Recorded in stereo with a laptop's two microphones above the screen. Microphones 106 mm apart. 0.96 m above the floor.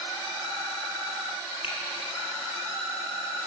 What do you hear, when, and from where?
1.6 s a finger snap: 70° left (ahead or behind), 1.7 m